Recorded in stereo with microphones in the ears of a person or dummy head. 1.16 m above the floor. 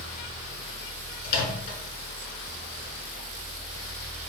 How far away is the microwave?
About 1.4 m.